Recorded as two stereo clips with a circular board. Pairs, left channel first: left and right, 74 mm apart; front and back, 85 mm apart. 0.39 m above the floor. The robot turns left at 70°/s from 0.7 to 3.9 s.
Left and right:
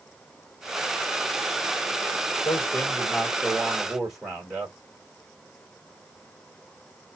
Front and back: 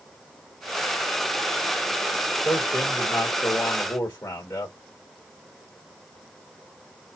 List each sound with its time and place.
2.5 s a man speaking: 90° left, 1.6 m; by 4.7 s 15° right, 1.6 m